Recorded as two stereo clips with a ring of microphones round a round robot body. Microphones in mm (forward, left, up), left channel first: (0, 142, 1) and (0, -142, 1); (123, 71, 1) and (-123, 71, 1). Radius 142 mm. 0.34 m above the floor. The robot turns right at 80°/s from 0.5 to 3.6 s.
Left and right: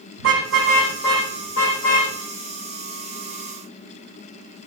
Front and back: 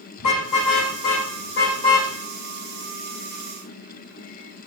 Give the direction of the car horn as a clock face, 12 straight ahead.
1 o'clock.